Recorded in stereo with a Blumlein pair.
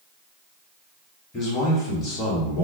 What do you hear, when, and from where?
1.3 s a man speaking: 25° left, 1.7 m